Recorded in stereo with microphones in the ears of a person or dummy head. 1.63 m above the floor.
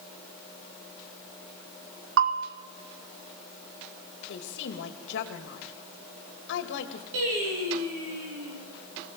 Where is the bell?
60° right (ahead or behind), 1.3 m.